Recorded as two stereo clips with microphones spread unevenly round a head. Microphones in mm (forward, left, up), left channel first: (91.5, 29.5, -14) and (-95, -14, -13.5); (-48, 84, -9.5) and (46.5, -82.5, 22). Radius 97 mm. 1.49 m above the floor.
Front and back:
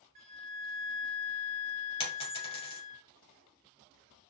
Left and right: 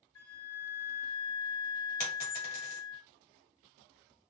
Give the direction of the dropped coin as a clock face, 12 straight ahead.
10 o'clock.